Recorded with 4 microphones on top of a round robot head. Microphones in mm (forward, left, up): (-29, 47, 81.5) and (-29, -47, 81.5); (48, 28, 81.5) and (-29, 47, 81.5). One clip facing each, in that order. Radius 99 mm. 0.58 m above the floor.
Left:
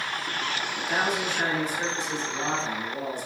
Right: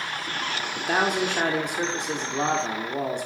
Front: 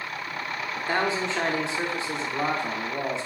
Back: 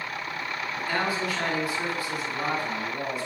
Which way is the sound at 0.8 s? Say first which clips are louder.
Right 4 dB, front 2 dB; 75° right.